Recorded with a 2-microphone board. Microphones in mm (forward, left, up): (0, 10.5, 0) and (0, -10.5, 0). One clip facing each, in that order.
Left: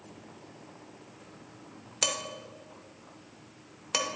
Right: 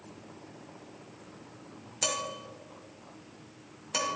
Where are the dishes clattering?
30° left (ahead or behind), 1.0 m.